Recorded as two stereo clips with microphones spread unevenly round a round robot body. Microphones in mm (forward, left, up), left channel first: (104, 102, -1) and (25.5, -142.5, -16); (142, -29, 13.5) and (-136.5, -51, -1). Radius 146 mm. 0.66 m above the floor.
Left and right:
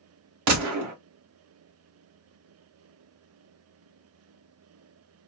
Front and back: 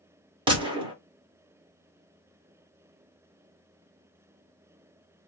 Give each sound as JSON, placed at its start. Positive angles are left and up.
{"t": 0.5, "sound": "a gunshot", "azimuth_deg": -100, "distance_m": 1.5}